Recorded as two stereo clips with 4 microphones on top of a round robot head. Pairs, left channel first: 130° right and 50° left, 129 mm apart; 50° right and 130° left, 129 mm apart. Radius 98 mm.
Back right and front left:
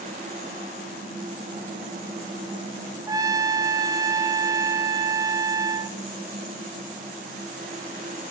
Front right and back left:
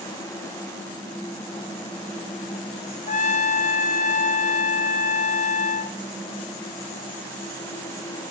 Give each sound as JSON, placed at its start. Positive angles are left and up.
{"t": 3.1, "sound": "a trumpet", "azimuth_deg": -15, "distance_m": 1.3}